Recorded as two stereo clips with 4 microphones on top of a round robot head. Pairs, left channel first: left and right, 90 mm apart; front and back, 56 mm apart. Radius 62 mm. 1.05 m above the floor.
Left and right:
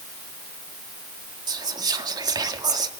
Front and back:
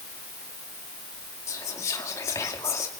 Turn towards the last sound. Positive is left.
turn(degrees=-45)